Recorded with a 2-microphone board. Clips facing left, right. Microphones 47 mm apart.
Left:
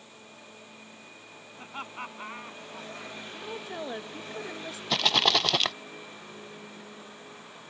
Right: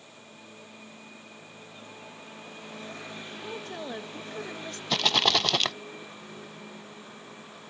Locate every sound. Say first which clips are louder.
1.6 s laughter: left 11 dB; 90° left; by 3.1 s 80° left
3.3 s a woman speaking: left 1 dB; 10° left (ahead or behind)
4.9 s a rattle: even; centre (ahead or behind)